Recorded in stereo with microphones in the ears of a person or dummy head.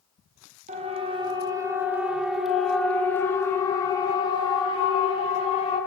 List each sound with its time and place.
0.7 s a siren: 35° right (ahead or behind), 4 m; by 5.8 s 40° left (ahead or behind), 8 m